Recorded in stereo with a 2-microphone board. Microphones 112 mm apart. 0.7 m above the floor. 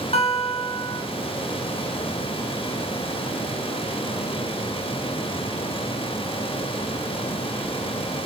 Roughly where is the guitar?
Left.